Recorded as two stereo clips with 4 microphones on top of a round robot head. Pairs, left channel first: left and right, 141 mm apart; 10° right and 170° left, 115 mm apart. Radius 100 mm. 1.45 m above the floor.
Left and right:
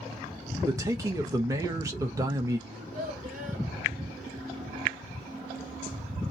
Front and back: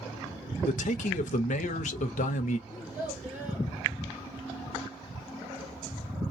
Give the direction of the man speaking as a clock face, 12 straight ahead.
1 o'clock.